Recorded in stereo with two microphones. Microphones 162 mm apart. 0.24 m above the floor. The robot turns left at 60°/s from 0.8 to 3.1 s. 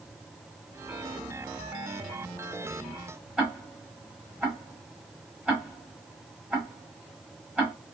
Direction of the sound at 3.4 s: 5° right (ahead or behind).